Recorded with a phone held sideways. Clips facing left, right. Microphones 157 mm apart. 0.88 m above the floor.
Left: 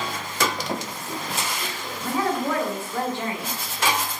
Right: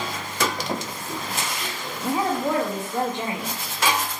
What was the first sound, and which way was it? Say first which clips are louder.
A woman speaking: right 1 dB; 20° right (ahead or behind).